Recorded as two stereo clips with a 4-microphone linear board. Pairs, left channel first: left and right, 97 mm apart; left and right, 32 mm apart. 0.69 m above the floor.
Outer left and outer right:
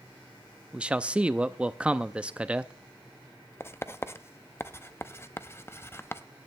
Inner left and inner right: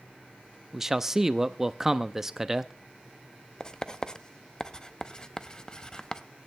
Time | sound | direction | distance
0.7 | a man speaking | 10° right (ahead or behind) | 0.6 m
3.6 | writing | 25° left (ahead or behind) | 0.6 m